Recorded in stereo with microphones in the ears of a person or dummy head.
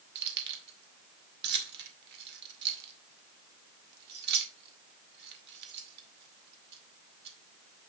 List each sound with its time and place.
0.1 s keys jangling: 60° right (ahead or behind), 2 m